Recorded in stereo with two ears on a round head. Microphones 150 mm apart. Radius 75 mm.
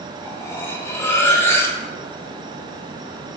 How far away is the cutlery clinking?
About 0.5 m.